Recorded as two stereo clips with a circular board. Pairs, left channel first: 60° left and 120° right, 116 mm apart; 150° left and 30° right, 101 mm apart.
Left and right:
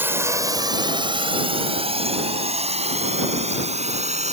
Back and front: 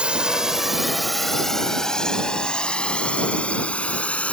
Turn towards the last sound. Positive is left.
turn(degrees=-135)